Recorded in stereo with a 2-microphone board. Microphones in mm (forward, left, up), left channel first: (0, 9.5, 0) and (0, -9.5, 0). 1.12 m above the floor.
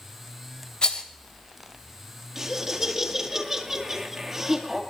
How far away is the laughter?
About 2 m.